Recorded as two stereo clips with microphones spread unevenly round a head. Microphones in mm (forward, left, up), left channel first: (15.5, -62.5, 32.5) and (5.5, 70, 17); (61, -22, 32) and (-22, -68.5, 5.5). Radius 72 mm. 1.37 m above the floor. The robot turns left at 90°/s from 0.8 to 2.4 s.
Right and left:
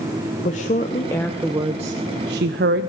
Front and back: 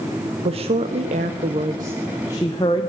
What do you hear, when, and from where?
0.5 s a woman speaking: 125° right, 0.6 m; by 2.9 s 90° left, 0.6 m